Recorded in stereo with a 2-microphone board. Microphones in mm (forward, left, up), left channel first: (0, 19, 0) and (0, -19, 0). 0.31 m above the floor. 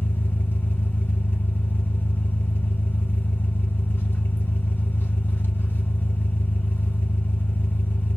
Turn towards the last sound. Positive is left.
turn(degrees=75)  # may be behind; listen again after turning